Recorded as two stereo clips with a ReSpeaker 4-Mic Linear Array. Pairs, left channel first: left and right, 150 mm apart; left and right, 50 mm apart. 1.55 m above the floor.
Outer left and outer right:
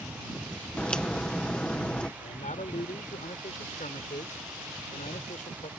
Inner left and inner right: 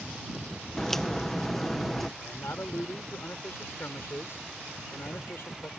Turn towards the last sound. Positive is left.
turn(degrees=60)  # may be behind; listen again after turning